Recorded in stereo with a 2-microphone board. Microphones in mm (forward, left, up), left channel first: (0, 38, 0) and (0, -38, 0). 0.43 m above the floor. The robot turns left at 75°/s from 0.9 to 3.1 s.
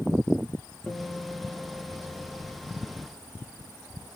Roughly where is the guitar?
Ahead left.